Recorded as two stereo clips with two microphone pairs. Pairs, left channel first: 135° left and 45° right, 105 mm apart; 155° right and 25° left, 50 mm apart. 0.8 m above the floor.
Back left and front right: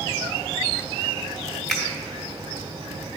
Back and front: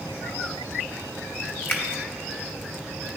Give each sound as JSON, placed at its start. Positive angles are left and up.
{"t": 1.7, "sound": "a finger snap", "azimuth_deg": -140, "distance_m": 1.1}